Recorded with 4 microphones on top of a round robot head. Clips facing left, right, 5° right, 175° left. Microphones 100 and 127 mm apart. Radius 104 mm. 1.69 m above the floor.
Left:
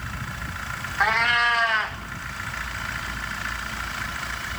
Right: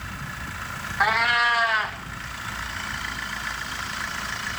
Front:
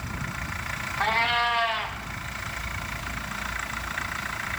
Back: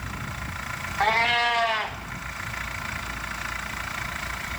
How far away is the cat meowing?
About 1.0 m.